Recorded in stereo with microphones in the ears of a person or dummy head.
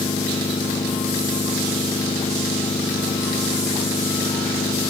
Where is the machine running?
20° left (ahead or behind).